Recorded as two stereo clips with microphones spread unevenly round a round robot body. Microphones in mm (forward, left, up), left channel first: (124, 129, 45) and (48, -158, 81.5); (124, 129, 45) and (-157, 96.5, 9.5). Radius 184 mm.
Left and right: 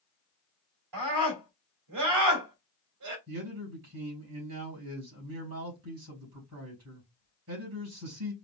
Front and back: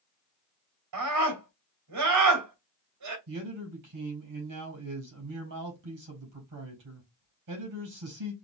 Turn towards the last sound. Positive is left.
turn(degrees=-155)